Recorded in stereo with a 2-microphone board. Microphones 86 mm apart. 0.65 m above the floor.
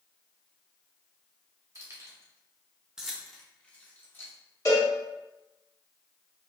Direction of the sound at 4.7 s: 45° left (ahead or behind).